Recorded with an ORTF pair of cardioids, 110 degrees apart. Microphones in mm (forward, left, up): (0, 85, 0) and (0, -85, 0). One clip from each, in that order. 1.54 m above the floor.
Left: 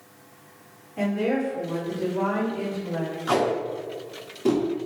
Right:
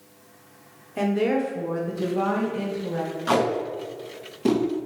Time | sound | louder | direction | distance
1.0 | a woman speaking | right 2 dB | 70° right | 1.2 m
3.3 | tape being pulled | right 1 dB | 25° right | 1.3 m